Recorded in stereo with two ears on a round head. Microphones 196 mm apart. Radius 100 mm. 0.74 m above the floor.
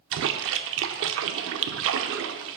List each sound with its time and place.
0.1 s a splash: 60° right (ahead or behind), 0.6 m